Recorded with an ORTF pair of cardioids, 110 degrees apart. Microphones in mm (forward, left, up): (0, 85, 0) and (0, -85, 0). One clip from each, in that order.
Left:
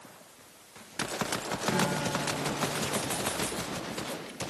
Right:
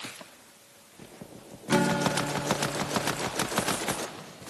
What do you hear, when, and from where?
1.7 s a guitar: 40° right, 1.0 m